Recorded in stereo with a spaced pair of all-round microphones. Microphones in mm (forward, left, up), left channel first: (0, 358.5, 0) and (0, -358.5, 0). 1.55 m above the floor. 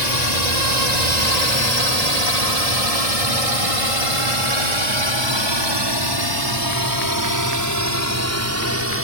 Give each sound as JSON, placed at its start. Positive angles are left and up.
{"t": 0.0, "sound": "a drone", "side_deg": -70}